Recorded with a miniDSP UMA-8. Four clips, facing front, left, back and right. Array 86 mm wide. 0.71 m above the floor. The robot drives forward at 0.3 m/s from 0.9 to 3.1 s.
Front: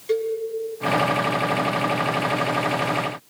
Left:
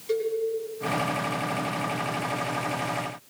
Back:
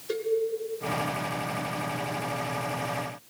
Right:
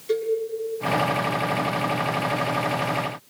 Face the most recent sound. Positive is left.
turn(degrees=-5)